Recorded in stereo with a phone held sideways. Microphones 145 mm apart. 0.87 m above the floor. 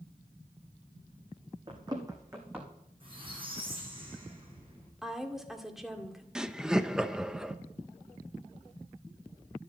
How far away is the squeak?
About 7.5 m.